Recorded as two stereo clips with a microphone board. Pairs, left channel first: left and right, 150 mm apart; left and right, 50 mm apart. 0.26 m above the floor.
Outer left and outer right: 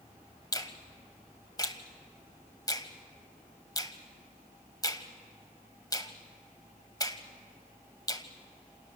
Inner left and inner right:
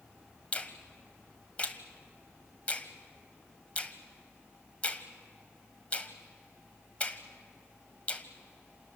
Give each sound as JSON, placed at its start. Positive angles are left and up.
{"t": 0.5, "sound": "a finger snap", "side_deg": 25, "distance_m": 1.4}